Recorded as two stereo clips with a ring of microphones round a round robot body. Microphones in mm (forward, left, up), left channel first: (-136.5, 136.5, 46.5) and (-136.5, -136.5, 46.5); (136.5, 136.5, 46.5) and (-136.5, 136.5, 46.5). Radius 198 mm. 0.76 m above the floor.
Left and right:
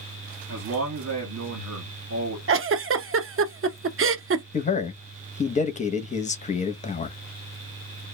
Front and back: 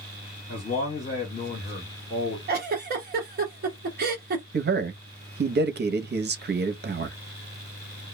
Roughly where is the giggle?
Behind right.